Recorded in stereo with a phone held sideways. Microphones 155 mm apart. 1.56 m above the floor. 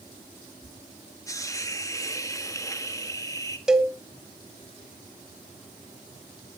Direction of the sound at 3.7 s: 5° right (ahead or behind).